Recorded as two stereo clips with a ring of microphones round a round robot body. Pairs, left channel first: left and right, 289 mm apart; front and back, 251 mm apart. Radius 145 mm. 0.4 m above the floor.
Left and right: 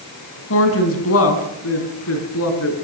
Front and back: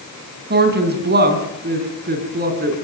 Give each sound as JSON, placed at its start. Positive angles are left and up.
{"t": 0.5, "sound": "a woman speaking", "azimuth_deg": 135, "distance_m": 4.0}